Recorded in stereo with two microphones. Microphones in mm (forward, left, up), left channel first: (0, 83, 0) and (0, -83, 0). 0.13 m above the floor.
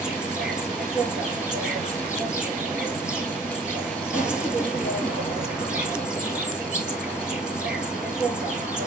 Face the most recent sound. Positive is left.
turn(degrees=-5)  # may be behind; listen again after turning